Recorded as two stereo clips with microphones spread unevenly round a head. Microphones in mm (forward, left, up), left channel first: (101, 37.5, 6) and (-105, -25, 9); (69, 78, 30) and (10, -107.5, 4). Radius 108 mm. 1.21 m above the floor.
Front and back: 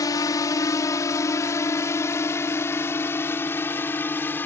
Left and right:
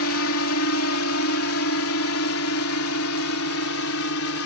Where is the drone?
90° left; by 4.5 s 95° left.